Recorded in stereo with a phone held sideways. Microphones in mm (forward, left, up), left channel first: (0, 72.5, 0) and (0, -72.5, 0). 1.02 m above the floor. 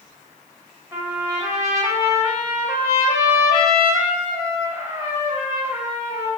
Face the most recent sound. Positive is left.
turn(degrees=-25)  # may be behind; listen again after turning